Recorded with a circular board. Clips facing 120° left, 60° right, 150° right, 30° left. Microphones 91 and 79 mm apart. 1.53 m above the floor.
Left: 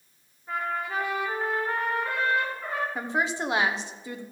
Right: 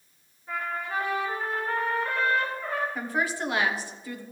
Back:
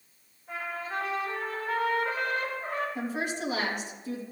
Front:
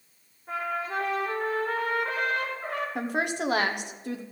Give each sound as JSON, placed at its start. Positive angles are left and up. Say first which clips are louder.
{"t": 0.5, "sound": "a trumpet", "louder": "left 2 dB, front 4 dB", "azimuth_deg": 50, "distance_m": 4.0}
{"t": 3.0, "sound": "a woman speaking", "louder": "left 1 dB, front 3 dB", "azimuth_deg": 50, "distance_m": 1.0}